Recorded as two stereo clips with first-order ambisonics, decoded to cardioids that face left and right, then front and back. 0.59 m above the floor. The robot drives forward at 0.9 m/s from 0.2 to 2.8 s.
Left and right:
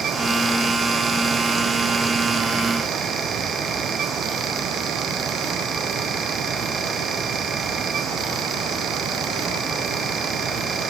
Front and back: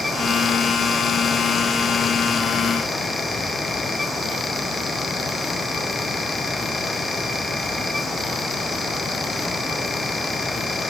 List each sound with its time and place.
Only background noise.